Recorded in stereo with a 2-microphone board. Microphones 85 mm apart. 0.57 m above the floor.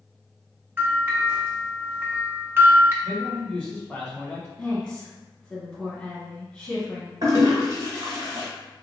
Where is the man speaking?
10° left (ahead or behind), 1.3 m.